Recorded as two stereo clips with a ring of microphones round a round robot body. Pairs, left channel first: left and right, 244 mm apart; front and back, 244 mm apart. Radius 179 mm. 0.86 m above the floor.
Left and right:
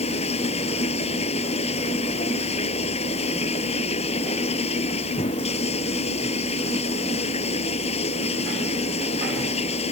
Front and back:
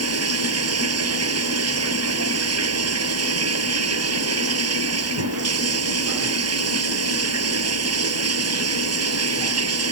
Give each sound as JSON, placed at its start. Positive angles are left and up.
{"t": 0.0, "sound": "running water", "azimuth_deg": 165}